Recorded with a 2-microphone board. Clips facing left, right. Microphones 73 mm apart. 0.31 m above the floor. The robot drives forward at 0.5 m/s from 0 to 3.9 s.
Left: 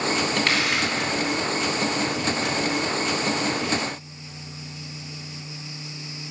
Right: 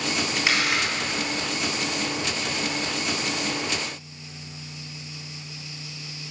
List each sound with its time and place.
0.4 s a camera shutter: 5° right (ahead or behind), 3 m